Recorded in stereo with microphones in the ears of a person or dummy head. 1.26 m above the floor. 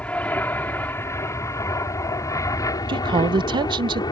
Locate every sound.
0.0 s an aircraft: 10° left (ahead or behind); by 4.1 s 20° left (ahead or behind)
2.9 s a woman speaking: 25° right (ahead or behind)